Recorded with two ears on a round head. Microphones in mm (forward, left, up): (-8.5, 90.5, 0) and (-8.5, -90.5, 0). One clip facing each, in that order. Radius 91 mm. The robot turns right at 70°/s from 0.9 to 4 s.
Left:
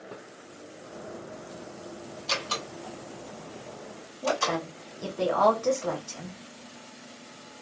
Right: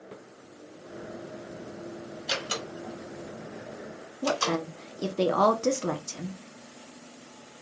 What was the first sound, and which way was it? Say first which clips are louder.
A door slam: right 1 dB; 10° right (ahead or behind).